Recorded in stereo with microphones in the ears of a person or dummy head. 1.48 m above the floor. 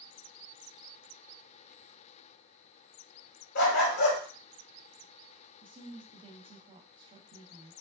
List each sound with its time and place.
3.5 s a dog barking: 65° left (ahead or behind), 2 m
5.6 s a woman speaking: 25° right (ahead or behind), 0.7 m